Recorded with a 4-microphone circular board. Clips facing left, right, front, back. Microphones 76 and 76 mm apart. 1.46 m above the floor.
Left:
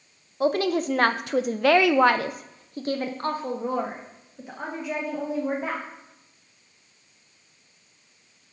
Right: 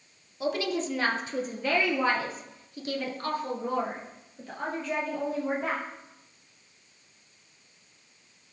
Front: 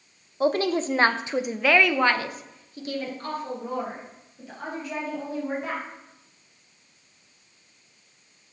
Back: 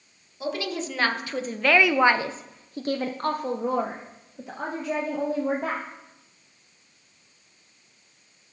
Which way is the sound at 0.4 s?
45° left.